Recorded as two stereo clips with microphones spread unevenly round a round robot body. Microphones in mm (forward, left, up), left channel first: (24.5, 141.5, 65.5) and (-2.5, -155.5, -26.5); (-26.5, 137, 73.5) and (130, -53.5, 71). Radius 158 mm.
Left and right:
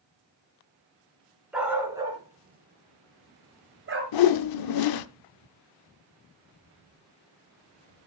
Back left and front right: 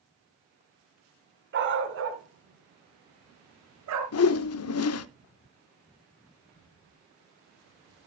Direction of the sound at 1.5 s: 5° right.